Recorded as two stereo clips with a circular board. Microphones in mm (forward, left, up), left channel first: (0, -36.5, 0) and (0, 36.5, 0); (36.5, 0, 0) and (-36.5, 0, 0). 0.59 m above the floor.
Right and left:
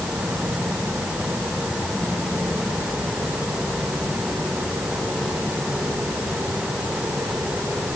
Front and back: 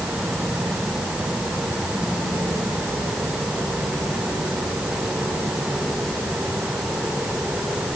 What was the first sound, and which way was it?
Only background noise.